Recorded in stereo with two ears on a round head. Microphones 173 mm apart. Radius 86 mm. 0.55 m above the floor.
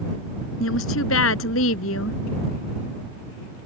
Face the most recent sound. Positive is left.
turn(degrees=80)